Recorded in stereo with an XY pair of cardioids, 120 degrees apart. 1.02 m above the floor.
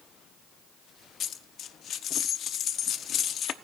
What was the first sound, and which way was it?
A dropped coin, 55° left.